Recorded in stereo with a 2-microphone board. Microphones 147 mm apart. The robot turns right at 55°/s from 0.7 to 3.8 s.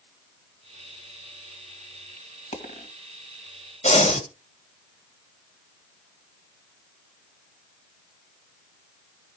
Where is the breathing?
55° left (ahead or behind), 2.5 m.